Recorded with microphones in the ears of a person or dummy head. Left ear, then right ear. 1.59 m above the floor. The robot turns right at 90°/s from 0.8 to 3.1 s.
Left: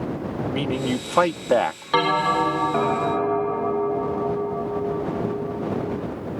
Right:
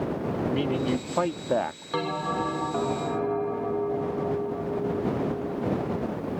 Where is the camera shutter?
No camera shutter in this recording.